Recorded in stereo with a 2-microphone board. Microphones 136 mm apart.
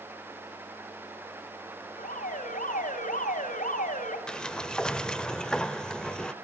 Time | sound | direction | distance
2.0 | an alarm | 75° left (ahead or behind) | 5.5 m
4.3 | a sliding door | 5° left (ahead or behind) | 0.9 m